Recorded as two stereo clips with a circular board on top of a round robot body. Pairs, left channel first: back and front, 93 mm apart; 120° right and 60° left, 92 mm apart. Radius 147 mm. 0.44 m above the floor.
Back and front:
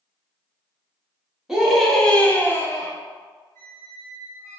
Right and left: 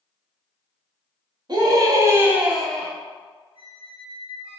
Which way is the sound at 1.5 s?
85° left.